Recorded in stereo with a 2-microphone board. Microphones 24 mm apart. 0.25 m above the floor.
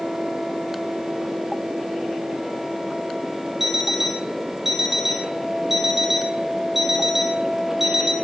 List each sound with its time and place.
3.6 s an alarm clock: 10° right (ahead or behind), 2.5 m